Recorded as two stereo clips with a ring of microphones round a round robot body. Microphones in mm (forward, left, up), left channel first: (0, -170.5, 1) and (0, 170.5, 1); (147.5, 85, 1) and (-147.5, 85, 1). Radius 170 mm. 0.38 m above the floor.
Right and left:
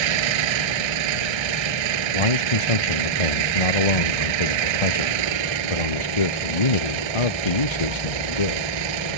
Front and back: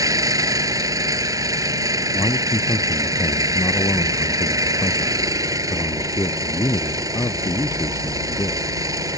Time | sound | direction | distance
0.0 | an engine running | 100° left | ?
2.1 | a man speaking | 85° right | ?